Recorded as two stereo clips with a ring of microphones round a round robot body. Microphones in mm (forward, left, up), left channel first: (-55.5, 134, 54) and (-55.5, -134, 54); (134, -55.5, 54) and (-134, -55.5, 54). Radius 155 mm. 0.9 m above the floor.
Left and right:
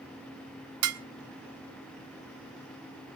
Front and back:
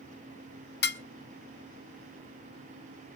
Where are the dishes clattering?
50° right, 0.7 m.